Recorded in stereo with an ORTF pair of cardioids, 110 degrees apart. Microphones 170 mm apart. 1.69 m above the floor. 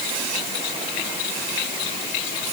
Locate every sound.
Only background noise.